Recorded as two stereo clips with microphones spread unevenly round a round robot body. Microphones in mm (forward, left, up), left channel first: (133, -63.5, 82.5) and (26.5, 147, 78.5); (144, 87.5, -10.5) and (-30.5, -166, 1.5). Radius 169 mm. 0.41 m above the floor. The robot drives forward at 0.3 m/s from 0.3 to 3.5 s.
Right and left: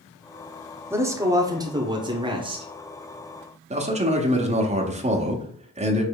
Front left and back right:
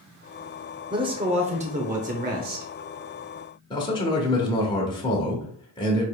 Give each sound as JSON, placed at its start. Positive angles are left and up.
{"t": 0.9, "sound": "a man speaking", "azimuth_deg": 180, "distance_m": 0.8}
{"t": 3.7, "sound": "a man speaking", "azimuth_deg": 110, "distance_m": 0.9}